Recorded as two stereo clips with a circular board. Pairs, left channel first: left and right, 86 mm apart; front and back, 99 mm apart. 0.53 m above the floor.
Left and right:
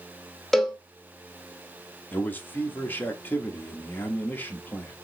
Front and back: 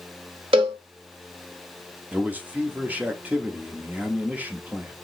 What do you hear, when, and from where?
0.5 s a cowbell: 175° left, 1.0 m
2.1 s a man speaking: 125° left, 0.8 m